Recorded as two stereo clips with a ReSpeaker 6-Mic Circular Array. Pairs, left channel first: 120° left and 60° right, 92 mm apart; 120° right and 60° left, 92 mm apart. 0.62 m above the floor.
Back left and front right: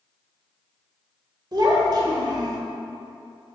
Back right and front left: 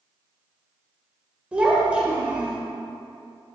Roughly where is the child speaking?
Ahead.